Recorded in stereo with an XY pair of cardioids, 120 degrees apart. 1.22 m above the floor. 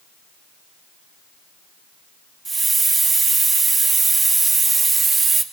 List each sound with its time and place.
2.5 s a hiss: 25° right, 2.5 m